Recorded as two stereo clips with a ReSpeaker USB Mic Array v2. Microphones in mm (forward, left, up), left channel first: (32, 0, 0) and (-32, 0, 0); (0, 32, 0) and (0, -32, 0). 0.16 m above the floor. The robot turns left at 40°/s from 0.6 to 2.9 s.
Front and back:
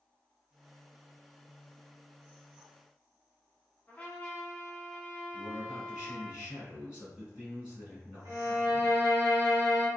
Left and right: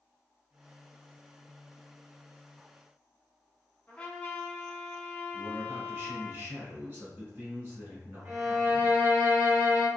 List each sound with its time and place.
3.9 s a trumpet: 45° left, 0.8 m
5.3 s a man speaking: 115° right, 1.6 m
8.2 s a violin: 145° right, 0.9 m